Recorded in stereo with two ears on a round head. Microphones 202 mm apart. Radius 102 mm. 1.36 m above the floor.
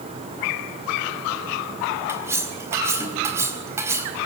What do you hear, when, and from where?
2.1 s cutlery clinking: 10° right (ahead or behind), 4 m